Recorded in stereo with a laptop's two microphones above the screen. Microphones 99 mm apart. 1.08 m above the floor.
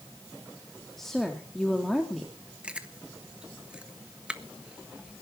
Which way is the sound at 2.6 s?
10° right (ahead or behind).